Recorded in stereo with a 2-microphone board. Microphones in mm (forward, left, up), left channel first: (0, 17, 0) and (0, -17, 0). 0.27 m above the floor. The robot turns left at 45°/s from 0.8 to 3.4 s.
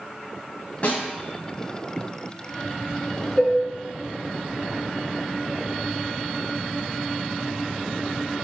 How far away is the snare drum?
About 0.6 m.